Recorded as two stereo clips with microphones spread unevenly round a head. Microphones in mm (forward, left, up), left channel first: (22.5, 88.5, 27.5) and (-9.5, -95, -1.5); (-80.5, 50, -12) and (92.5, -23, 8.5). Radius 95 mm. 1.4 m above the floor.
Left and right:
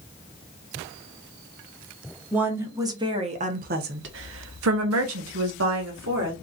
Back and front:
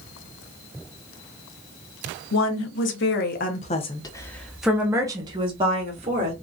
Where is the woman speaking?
Straight behind, 1.2 m; by 6.3 s 75° right, 1.4 m.